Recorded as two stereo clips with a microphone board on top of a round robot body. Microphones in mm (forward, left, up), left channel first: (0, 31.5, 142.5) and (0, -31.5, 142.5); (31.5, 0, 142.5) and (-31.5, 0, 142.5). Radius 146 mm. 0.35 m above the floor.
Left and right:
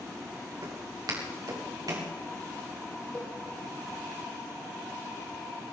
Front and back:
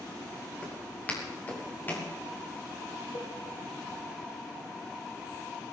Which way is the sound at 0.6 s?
70° right.